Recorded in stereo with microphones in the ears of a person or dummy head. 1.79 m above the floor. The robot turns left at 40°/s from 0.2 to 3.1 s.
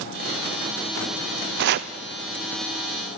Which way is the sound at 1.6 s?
55° right (ahead or behind).